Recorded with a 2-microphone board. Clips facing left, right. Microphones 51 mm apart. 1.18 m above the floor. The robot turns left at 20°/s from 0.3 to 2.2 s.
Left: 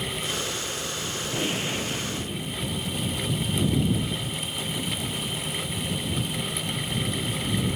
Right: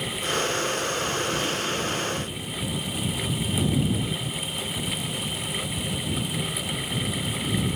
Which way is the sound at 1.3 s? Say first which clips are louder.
Right 1 dB; 25° left (ahead or behind).